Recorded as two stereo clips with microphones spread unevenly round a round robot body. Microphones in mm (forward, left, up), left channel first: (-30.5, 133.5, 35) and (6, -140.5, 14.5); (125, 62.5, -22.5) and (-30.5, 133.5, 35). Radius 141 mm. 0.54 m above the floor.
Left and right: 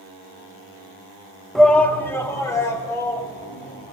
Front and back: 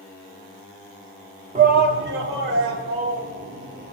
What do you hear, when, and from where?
1.6 s a shout: 165° right, 0.9 m; by 3.9 s 175° left, 4 m